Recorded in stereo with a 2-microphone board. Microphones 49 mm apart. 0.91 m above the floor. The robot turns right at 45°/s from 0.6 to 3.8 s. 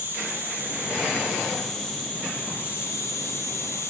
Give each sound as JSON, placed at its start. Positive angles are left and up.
{"t": 0.0, "sound": "an insect", "azimuth_deg": -55, "distance_m": 9.5}